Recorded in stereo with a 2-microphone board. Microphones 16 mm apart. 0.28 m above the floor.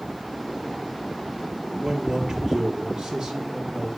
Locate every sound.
1.8 s a man speaking: 75° right (ahead or behind), 5 m